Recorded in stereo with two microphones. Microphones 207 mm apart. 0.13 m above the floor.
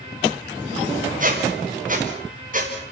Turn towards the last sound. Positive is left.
turn(degrees=-40)  # may be behind; listen again after turning